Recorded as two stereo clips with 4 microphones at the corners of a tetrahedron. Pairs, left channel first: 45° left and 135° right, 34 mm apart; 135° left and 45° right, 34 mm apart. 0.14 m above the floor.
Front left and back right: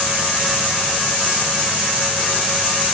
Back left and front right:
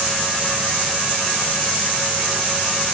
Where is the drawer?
No drawer in this recording.